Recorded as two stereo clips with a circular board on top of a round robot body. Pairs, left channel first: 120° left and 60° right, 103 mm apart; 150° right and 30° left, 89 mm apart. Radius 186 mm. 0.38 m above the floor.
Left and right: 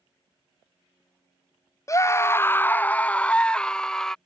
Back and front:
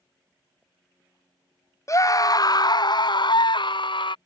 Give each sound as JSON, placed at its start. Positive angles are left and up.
{"t": 1.9, "sound": "a scream", "azimuth_deg": 170}